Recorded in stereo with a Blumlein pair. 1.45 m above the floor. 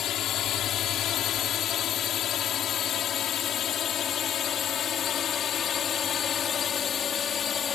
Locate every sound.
0.0 s a drone: 30° left; by 7.8 s 20° left